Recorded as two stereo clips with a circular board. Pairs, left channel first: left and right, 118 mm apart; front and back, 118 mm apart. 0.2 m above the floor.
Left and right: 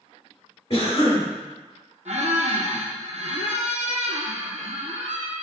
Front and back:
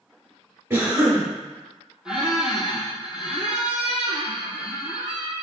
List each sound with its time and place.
0.7 s a cough: 120° left, 1.8 m
2.0 s a squeak: 95° right, 0.7 m